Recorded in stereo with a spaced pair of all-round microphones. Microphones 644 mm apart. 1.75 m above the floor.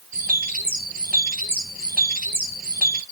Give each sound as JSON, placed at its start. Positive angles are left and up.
{"t": 0.1, "sound": "a bird", "side_deg": -15, "distance_m": 1.0}